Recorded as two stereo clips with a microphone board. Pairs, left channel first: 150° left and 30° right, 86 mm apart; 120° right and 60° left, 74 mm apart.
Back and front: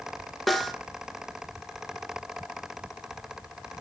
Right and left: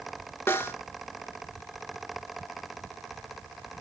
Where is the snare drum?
120° right, 0.7 m.